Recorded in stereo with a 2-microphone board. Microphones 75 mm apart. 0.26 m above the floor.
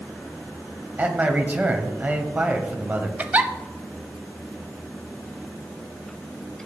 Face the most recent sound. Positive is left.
turn(degrees=-25)  # may be behind; listen again after turning